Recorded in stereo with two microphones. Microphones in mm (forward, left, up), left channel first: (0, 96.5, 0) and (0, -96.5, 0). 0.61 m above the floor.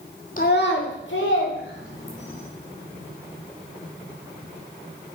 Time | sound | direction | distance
0.4 | a child speaking | 45° left (ahead or behind) | 0.8 m